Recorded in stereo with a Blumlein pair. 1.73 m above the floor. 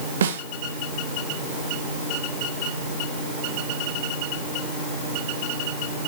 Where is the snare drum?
65° right, 1.7 m.